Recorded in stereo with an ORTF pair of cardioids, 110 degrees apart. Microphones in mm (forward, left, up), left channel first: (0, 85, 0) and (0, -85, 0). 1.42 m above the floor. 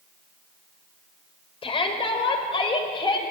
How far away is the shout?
About 4.5 m.